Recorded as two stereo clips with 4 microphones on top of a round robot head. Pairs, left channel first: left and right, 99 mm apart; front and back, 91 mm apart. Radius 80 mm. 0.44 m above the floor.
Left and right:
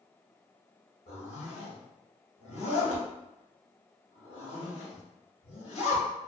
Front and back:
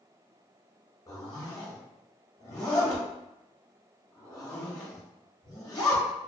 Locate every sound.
1.1 s a zipper: 50° left, 1.3 m